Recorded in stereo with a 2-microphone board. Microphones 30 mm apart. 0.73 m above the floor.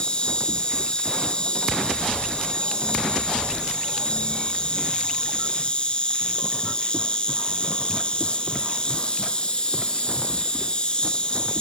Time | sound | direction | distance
0.0 | an insect | 30° left (ahead or behind) | 2.5 m